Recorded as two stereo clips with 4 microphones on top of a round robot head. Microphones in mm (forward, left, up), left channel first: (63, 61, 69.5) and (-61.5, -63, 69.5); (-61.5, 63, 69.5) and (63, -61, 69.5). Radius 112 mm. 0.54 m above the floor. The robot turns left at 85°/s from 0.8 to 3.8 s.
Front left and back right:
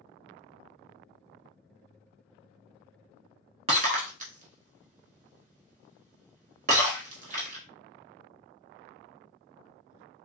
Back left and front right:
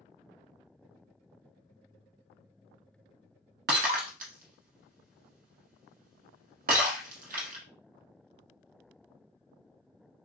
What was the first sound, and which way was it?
Breaking glass, 80° right.